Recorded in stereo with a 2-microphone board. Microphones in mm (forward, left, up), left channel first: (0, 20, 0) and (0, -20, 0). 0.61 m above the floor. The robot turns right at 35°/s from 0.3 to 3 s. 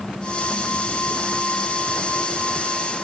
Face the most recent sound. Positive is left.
No sound to turn to.